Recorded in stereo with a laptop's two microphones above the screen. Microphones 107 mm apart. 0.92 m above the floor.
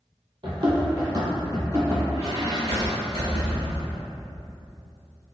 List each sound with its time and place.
0.4 s running footsteps: 45° right (ahead or behind), 1.3 m; by 2.0 s 25° right (ahead or behind), 1.2 m
2.1 s a squeak: 65° right (ahead or behind), 1.7 m